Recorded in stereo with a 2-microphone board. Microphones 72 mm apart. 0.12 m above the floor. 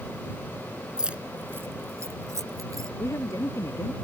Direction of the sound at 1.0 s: 10° right (ahead or behind).